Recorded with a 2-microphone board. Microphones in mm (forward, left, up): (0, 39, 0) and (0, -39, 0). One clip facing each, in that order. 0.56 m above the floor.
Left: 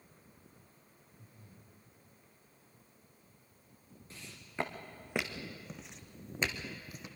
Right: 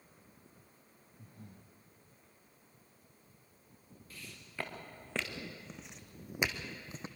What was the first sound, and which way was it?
Breathing, 70° right (ahead or behind).